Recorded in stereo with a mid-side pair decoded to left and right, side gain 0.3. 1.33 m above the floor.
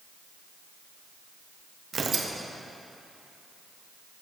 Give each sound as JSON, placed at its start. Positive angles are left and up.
{"t": 1.9, "sound": "tearing paper", "azimuth_deg": -60, "distance_m": 0.8}